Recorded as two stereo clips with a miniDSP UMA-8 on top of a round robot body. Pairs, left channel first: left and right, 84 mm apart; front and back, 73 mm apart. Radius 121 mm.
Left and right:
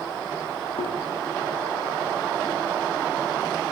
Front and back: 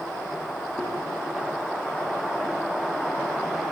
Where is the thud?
85° left, 7 m.